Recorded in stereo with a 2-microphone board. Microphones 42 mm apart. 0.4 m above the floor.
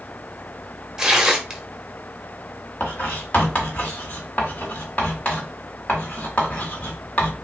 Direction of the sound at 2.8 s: 30° left (ahead or behind).